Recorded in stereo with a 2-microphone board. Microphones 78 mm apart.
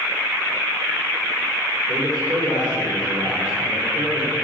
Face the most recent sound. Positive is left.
turn(degrees=-65)  # may be behind; listen again after turning